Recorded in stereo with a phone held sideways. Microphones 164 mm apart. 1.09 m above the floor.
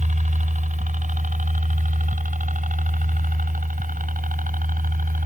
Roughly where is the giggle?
No giggle in this recording.